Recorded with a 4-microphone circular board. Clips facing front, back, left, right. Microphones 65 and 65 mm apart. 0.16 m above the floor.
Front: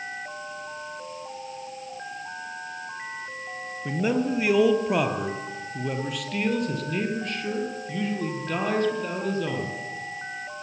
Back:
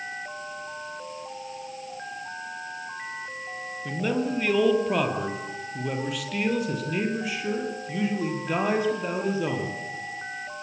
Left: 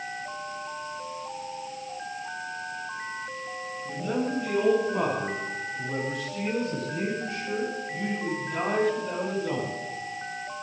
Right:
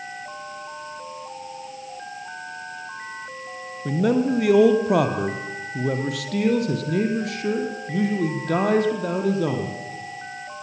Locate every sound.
3.9 s a man speaking: 75° right, 3 m; by 9.7 s 105° right, 5.5 m